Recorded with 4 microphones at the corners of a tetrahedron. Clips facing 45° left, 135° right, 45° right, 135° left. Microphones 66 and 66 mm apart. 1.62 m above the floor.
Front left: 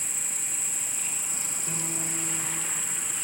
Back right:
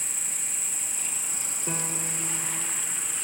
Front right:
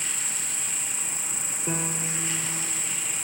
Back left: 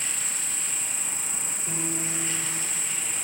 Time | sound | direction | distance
0.0 | an insect | 80° left | 1.7 m
1.7 | a piano | 80° right | 0.9 m